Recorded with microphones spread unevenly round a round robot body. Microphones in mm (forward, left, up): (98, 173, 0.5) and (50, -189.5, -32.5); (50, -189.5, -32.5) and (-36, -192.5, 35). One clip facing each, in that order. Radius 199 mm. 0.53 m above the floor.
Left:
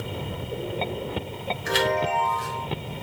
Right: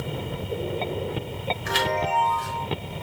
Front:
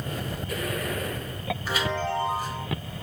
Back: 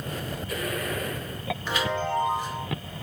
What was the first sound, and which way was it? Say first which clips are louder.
A chime: left 4 dB, back 1 dB; 95° left.